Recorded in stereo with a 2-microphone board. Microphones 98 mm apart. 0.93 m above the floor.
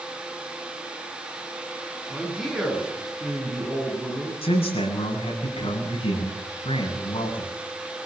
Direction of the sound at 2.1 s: 5° right (ahead or behind).